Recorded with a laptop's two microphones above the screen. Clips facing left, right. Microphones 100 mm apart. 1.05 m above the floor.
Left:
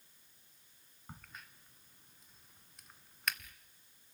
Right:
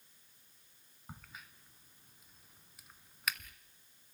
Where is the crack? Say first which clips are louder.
Right 1 dB; 5° right (ahead or behind), 1.7 m.